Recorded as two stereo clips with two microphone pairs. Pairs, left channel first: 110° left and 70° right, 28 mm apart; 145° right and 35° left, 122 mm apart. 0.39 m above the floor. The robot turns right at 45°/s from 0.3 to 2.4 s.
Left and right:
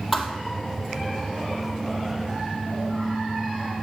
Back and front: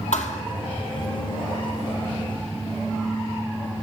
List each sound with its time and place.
0.1 s a thud: 155° right, 1.5 m; by 0.4 s 150° right, 1.5 m